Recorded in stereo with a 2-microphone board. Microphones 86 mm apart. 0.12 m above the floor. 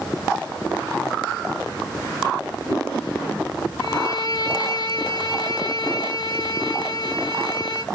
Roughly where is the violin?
Left.